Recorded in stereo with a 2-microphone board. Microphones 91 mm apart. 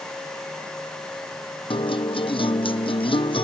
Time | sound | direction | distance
1.7 | a guitar | 80° left | ?